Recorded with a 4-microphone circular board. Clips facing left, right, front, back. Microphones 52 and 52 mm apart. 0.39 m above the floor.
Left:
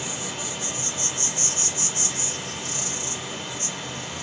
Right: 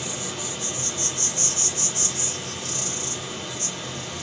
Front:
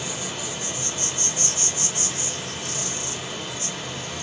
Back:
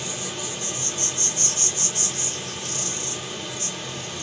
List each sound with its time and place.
0.0 s an insect: 45° left, 1.1 m